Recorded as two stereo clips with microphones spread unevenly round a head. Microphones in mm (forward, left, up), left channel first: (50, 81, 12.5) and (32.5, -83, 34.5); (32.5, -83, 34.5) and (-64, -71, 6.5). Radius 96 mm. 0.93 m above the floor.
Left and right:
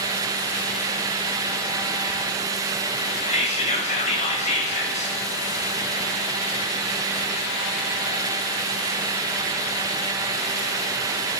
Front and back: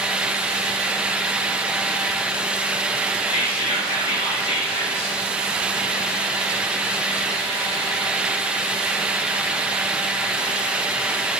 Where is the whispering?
40° left, 0.9 m.